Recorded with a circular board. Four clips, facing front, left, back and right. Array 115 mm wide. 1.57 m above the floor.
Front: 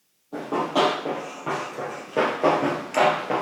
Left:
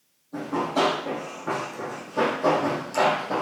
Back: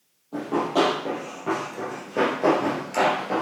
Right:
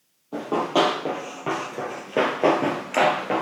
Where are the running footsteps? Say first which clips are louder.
Right 3 dB, back 1 dB; 90° right, 3 m; by 3.4 s 70° right, 1.9 m.